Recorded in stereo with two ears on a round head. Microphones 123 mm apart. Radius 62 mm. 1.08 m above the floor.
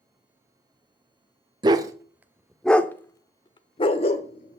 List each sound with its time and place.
1.6 s a dog barking: 30° right (ahead or behind), 1.0 m; by 4.6 s 55° left (ahead or behind), 1.4 m